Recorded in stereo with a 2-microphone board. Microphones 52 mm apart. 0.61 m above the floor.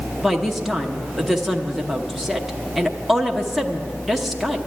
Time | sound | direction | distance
0.2 | a woman speaking | 5° right (ahead or behind) | 0.9 m